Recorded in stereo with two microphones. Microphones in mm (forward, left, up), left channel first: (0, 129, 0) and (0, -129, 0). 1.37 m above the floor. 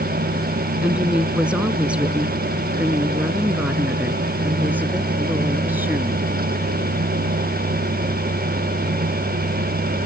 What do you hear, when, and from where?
0.8 s a woman speaking: 5° right (ahead or behind); by 6.3 s 10° right (ahead or behind)